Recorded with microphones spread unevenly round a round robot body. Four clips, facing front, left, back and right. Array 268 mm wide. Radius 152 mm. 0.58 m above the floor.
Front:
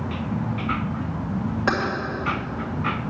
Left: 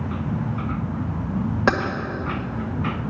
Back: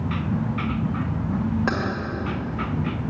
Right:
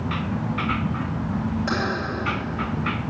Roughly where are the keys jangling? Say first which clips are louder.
Left 8 dB, front 5 dB; left.